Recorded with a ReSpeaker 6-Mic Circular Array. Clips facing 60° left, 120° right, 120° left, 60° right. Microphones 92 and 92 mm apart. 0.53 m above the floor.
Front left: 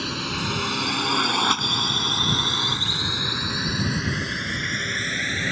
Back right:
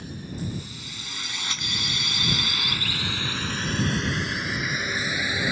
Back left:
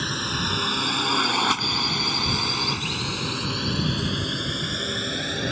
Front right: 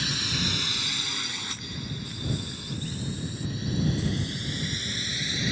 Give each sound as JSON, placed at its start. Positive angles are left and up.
{"t": 0.0, "sound": "a drone", "azimuth_deg": 70}